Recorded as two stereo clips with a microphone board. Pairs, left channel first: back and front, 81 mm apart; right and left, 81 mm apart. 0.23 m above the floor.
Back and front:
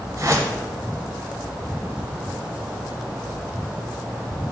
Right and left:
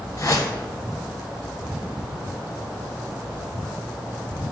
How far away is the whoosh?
About 1.0 m.